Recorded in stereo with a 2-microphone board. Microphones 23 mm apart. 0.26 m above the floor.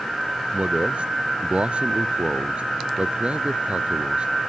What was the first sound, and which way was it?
A man speaking, 55° right (ahead or behind).